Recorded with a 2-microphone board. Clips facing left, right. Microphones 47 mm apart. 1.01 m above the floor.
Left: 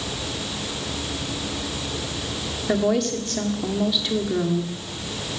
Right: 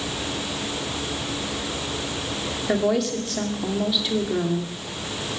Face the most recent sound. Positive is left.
turn(degrees=0)  # may be behind; listen again after turning